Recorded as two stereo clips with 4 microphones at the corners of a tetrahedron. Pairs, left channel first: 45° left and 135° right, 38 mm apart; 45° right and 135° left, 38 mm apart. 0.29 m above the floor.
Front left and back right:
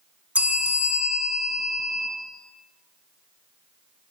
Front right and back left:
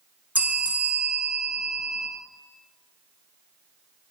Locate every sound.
0.3 s a bell: 175° left, 0.6 m